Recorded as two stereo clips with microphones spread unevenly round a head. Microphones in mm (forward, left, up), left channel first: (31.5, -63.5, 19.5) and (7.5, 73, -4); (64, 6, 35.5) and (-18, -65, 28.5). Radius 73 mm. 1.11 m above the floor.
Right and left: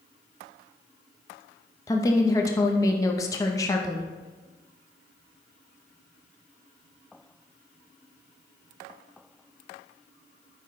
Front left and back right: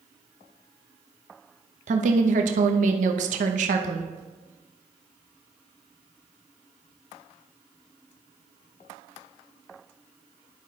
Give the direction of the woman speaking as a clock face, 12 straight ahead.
5 o'clock.